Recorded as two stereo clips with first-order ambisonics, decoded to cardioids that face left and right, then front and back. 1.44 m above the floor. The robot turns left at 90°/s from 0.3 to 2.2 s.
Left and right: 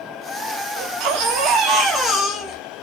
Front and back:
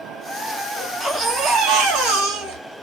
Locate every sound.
0.8 s a baby crying: 65° right, 1.7 m; by 2.6 s 165° left, 1.7 m